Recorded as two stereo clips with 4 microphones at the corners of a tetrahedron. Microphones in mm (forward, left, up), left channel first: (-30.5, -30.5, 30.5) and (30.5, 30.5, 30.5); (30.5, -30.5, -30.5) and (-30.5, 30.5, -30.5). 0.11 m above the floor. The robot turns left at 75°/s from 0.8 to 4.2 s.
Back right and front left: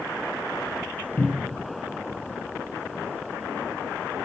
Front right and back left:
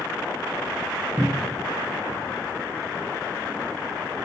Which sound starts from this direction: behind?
A cupboard door, at 1.2 s.